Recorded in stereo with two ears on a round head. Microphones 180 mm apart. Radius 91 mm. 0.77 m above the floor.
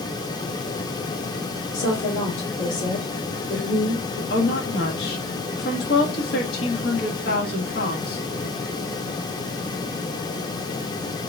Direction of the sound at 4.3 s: 50° left (ahead or behind).